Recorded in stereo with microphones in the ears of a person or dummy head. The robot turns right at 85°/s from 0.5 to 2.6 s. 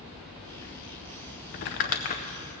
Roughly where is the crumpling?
Left.